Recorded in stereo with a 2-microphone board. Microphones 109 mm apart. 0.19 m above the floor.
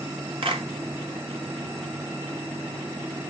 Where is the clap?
60° right (ahead or behind), 1.7 m.